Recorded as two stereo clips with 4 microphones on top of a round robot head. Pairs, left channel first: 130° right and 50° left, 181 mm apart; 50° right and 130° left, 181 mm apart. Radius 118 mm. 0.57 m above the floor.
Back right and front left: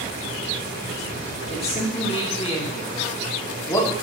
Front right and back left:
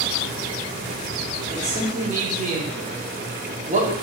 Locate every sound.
1.5 s a man speaking: 175° left, 3.5 m; by 3.9 s 160° left, 1.6 m